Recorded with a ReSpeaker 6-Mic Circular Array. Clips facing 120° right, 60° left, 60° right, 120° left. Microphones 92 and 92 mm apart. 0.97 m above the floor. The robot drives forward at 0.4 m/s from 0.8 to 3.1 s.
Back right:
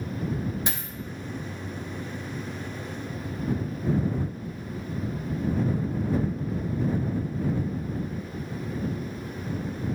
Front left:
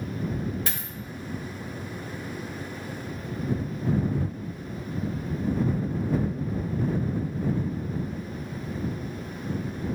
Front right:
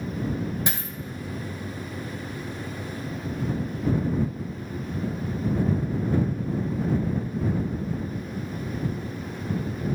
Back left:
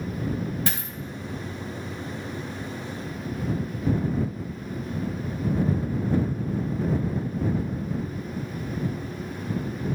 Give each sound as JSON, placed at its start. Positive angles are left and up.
{"t": 0.7, "sound": "a dropped coin", "azimuth_deg": -90, "distance_m": 0.7}